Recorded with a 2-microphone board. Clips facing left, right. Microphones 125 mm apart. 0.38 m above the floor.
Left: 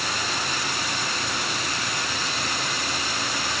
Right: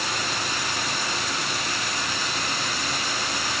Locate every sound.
Only background noise.